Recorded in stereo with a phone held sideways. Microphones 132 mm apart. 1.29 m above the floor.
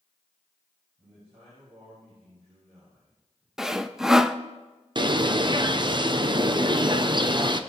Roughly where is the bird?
Right.